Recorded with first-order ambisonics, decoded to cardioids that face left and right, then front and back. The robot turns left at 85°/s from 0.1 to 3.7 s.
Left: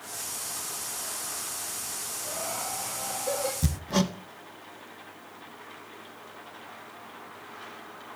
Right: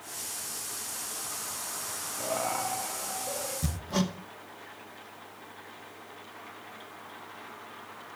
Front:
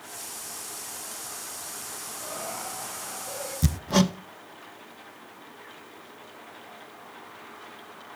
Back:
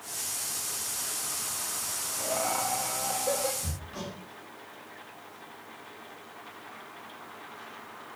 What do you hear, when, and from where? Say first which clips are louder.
2.2 s laughter: right 5 dB, back 7 dB; 115° right, 1.8 m; by 3.5 s 130° left, 1.8 m
3.6 s hammering: left 3 dB, front 13 dB; 20° left, 0.5 m; by 4.1 s 10° left, 0.5 m